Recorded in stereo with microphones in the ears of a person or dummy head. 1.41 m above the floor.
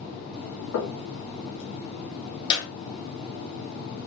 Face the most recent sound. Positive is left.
turn(degrees=25)  # may be behind; listen again after turning